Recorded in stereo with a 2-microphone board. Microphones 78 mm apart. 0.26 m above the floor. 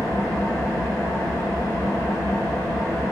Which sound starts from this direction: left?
An engine running, at 0.0 s.